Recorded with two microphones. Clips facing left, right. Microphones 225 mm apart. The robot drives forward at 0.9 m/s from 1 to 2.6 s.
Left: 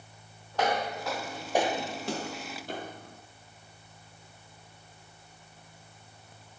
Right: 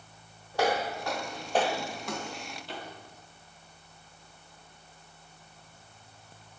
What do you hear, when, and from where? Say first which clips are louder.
0.5 s footsteps: right 1 dB; 10° right (ahead or behind), 2 m; by 3.2 s 55° left (ahead or behind), 1.9 m